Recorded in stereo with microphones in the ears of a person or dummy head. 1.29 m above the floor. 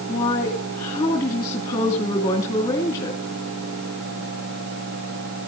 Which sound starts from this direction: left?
A woman speaking, at 0.1 s.